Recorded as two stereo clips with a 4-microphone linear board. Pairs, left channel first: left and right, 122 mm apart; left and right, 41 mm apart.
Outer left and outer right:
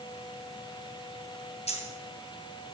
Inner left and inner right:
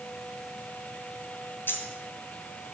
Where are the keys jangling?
65° left (ahead or behind), 2.5 m.